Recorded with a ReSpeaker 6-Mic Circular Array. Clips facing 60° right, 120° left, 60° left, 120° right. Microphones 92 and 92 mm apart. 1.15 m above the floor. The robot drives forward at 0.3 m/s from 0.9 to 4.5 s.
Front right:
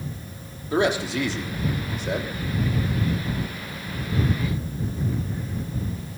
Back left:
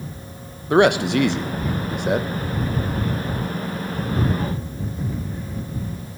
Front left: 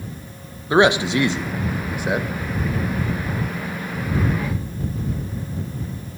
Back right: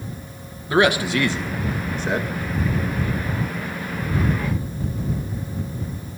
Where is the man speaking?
125° left, 1.3 m; by 2.3 s 140° left, 1.6 m.